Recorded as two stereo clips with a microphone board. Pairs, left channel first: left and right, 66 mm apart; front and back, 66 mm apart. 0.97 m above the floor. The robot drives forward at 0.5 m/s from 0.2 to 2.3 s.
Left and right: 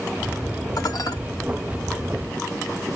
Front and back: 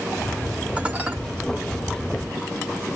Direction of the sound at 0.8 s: 110° left.